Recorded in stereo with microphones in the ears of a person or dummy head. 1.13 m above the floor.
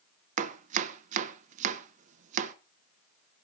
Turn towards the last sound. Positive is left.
turn(degrees=-40)  # may be behind; listen again after turning